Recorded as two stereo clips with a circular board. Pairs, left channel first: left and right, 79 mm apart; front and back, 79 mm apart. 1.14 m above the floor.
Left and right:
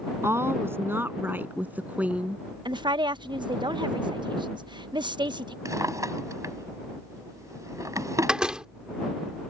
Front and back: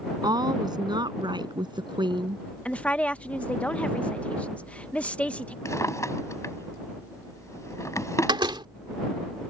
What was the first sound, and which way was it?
A woman speaking, 145° right.